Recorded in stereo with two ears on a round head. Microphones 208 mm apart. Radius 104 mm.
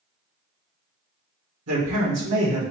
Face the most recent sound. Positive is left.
turn(degrees=-75)  # may be behind; listen again after turning